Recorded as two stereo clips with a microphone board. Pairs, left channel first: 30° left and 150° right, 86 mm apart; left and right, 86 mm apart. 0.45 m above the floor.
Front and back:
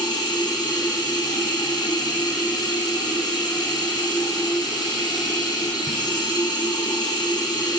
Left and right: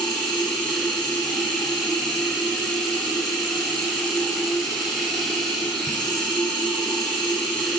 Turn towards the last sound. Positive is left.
turn(degrees=5)